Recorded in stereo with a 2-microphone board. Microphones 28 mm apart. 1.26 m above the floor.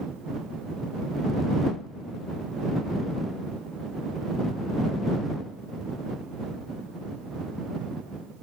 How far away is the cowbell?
No cowbell in this recording.